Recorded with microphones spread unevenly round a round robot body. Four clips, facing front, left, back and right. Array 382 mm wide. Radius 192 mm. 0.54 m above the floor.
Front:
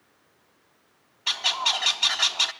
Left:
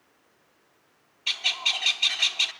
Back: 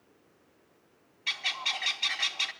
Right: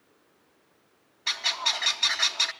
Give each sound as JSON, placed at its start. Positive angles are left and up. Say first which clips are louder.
{"t": 1.3, "sound": "a bird", "louder": "right 2 dB, front 8 dB", "azimuth_deg": -5, "distance_m": 0.9}